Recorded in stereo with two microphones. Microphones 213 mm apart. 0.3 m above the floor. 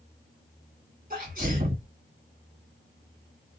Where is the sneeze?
40° right (ahead or behind), 1.6 m.